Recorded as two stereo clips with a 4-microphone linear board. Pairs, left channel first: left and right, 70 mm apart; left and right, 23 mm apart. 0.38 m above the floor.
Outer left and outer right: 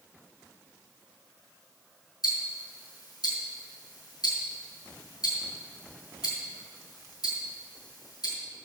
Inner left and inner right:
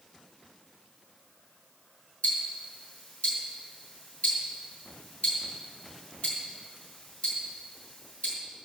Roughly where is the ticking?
Left.